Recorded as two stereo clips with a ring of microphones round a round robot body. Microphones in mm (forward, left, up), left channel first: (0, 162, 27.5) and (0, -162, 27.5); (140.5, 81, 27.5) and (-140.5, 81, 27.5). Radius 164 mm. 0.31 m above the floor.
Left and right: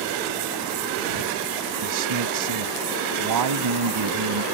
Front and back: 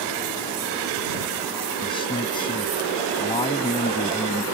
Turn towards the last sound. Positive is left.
turn(degrees=-75)